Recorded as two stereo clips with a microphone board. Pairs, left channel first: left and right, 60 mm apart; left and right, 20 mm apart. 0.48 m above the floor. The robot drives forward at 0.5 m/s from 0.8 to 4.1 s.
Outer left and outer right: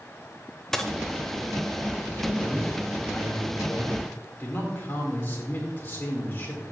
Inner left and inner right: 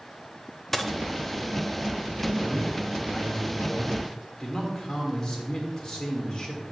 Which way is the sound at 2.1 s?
30° left (ahead or behind).